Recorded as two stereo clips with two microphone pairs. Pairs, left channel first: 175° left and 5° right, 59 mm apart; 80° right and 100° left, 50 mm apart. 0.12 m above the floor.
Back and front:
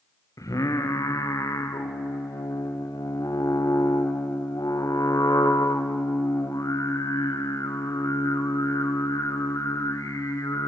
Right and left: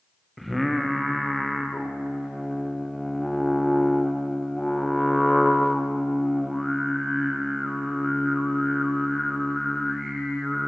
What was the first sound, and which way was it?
Singing, 170° right.